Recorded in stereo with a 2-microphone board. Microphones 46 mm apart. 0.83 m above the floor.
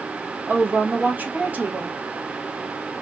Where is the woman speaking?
35° right (ahead or behind), 1.0 m.